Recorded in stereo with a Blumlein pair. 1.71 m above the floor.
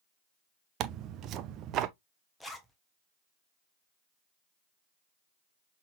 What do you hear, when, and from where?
0.8 s tearing paper: 35° right, 0.6 m
2.4 s a zipper: straight ahead, 1.2 m